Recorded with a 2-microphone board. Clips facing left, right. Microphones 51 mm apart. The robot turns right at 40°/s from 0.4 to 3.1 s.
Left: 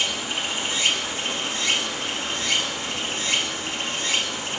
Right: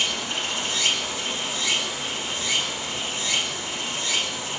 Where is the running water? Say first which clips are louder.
Even; 15° left, 0.8 m; by 4.6 s 120° left, 0.8 m.